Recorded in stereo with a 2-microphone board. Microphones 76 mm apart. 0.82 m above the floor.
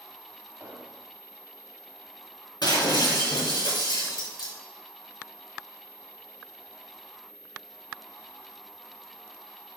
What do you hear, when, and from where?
0.6 s an explosion: 30° right (ahead or behind), 1.0 m
2.6 s breaking glass: 70° left (ahead or behind), 3 m